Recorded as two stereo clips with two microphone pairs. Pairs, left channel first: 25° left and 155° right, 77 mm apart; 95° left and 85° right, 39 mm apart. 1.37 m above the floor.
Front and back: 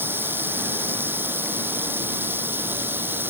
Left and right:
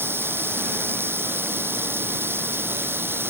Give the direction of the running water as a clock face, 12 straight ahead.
3 o'clock.